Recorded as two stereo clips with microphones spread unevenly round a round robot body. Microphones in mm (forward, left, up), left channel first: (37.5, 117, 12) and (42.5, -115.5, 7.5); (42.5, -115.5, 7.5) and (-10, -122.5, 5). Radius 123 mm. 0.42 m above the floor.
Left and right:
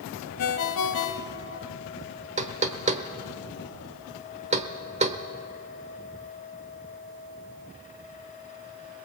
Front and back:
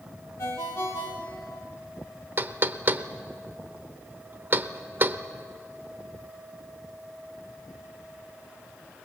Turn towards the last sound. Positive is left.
turn(degrees=-140)